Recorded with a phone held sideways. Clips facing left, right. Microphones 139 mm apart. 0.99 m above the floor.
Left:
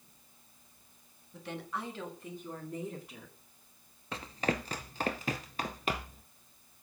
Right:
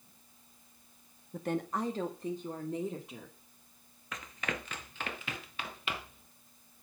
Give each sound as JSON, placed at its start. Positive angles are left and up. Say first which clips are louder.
{"t": 1.3, "sound": "a woman speaking", "louder": "right 6 dB", "side_deg": -50, "distance_m": 1.3}
{"t": 4.1, "sound": "running footsteps", "louder": "left 6 dB", "side_deg": 30, "distance_m": 1.1}